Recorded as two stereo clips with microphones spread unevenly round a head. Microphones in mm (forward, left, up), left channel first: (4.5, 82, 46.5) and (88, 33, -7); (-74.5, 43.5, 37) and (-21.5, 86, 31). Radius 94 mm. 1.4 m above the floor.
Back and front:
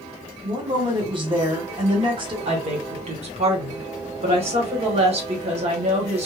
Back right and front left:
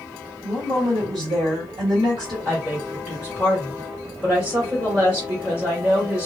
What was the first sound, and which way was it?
A woman speaking, straight ahead.